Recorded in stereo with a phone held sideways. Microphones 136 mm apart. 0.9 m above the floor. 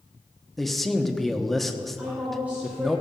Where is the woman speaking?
10° right (ahead or behind), 3.5 m.